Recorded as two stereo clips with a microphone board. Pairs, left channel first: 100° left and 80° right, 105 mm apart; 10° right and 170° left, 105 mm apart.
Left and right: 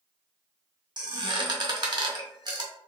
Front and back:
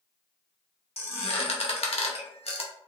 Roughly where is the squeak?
Ahead right.